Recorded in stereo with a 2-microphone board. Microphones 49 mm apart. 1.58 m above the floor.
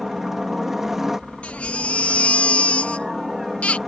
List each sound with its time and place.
0.0 s a helicopter: 10° right (ahead or behind)
1.4 s a baby crying: 25° left (ahead or behind)